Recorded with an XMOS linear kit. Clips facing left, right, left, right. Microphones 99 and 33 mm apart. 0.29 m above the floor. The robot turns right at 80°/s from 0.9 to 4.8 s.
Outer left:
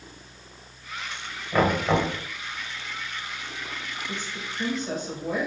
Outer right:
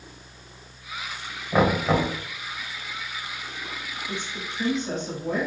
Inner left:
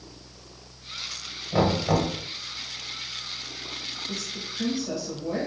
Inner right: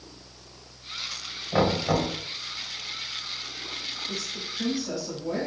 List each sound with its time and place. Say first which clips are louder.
1.5 s knocking: outer right 1 dB, inner left 1 dB; 35° right, 1.3 m; by 2.1 s 10° left, 1.3 m
4.1 s a woman speaking: outer right 1 dB, even; 15° right (ahead or behind), 1.4 m; by 5.5 s 5° left (ahead or behind), 1.4 m